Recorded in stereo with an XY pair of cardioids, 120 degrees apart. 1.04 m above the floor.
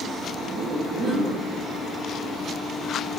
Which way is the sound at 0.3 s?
50° right.